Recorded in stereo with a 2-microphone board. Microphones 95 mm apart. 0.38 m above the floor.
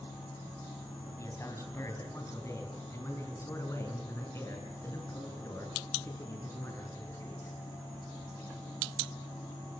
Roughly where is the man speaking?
Left.